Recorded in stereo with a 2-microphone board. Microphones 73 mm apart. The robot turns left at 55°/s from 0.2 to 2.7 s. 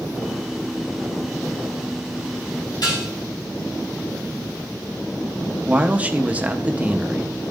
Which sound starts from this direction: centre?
A man speaking, at 5.7 s.